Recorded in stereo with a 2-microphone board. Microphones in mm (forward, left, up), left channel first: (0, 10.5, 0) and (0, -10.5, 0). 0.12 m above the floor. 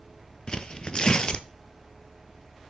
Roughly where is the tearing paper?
Left.